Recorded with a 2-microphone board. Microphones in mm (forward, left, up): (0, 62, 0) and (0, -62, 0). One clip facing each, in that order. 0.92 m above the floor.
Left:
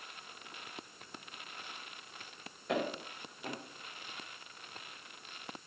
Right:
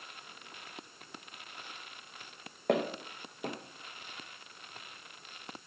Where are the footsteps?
65° right (ahead or behind), 2.5 m.